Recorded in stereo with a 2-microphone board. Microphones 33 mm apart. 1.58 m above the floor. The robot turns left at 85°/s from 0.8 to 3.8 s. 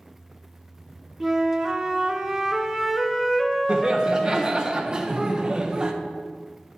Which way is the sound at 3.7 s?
35° right (ahead or behind).